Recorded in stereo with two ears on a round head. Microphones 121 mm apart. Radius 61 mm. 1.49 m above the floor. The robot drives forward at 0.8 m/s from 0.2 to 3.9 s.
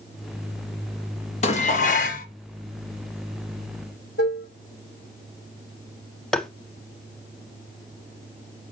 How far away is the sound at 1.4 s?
About 1.2 m.